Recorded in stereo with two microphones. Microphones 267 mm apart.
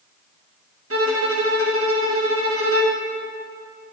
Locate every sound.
0.9 s a violin: 55° right (ahead or behind), 1.0 m